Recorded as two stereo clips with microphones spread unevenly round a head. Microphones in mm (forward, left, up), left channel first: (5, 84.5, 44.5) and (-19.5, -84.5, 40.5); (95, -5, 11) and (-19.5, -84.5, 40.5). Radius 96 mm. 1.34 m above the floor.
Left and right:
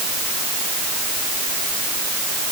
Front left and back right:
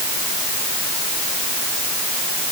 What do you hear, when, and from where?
Only background noise.